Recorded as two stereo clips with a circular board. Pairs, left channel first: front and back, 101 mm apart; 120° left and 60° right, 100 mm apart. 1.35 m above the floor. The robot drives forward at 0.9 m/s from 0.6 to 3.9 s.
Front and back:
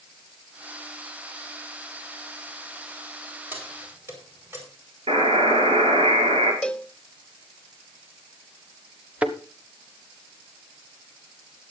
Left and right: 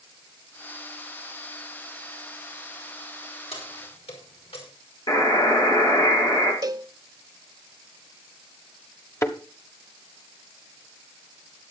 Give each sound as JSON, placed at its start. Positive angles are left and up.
{"t": 3.5, "sound": "keys jangling", "azimuth_deg": 110, "distance_m": 4.5}
{"t": 5.1, "sound": "a buzzer", "azimuth_deg": 165, "distance_m": 5.5}
{"t": 6.6, "sound": "a cowbell", "azimuth_deg": -75, "distance_m": 0.5}
{"t": 9.2, "sound": "a thud", "azimuth_deg": 120, "distance_m": 1.2}